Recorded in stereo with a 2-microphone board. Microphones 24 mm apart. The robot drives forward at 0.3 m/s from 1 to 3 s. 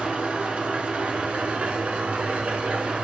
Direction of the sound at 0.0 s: 60° right (ahead or behind).